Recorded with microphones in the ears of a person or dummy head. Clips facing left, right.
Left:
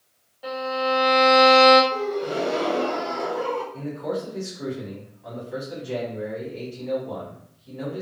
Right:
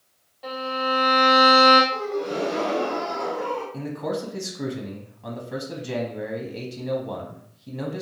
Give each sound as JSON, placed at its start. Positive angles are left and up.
{"t": 0.4, "sound": "a violin", "side_deg": 0, "distance_m": 1.3}
{"t": 1.9, "sound": "a gasp", "side_deg": 50, "distance_m": 1.6}
{"t": 3.7, "sound": "a man speaking", "side_deg": -70, "distance_m": 0.7}